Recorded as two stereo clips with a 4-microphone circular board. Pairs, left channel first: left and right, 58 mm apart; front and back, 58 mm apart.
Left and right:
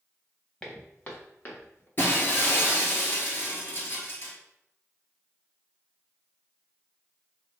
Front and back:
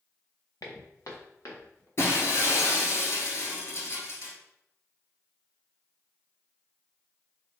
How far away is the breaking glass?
About 1.2 m.